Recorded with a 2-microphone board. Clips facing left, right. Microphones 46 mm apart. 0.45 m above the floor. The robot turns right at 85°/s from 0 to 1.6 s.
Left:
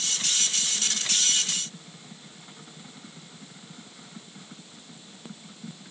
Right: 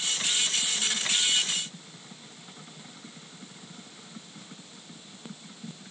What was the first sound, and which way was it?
Only background noise.